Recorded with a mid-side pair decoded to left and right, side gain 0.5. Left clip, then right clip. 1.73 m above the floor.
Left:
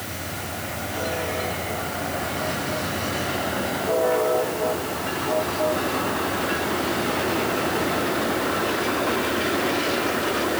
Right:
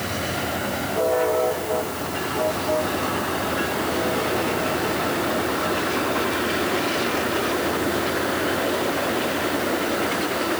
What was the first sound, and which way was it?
Only background noise.